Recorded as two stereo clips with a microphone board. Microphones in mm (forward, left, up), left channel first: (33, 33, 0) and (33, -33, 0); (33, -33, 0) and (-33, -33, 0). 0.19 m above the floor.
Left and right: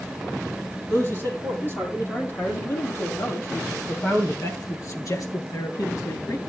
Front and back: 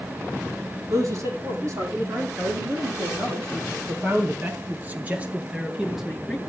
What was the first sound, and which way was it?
A man speaking, 145° left.